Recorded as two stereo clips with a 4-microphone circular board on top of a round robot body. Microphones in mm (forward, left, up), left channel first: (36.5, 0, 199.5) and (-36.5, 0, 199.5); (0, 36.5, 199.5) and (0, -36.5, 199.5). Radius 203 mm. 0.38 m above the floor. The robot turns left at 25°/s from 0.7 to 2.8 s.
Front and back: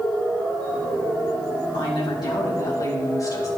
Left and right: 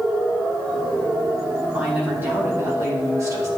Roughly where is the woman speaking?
Ahead.